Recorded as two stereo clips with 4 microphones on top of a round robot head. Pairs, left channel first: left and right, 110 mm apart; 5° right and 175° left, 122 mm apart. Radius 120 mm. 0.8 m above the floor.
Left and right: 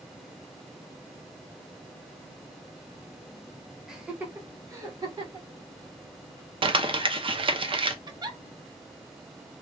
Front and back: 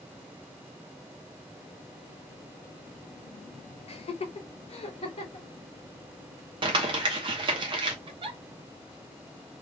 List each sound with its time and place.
3.9 s laughter: 5° right, 0.9 m; by 5.5 s 40° right, 1.5 m
6.6 s crumpling: 130° right, 0.6 m
8.1 s a giggle: 140° right, 0.8 m